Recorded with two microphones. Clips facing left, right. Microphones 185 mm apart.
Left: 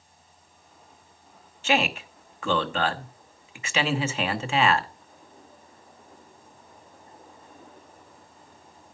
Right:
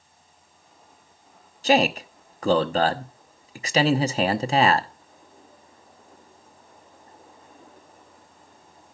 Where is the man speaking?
40° right (ahead or behind), 1.0 m.